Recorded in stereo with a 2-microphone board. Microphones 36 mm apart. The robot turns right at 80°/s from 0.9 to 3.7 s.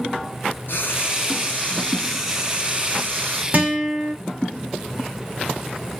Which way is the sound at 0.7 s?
75° left.